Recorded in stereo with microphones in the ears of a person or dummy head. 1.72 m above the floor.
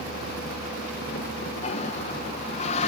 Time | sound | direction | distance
1.6 | a toilet flushing | 40° left (ahead or behind) | ?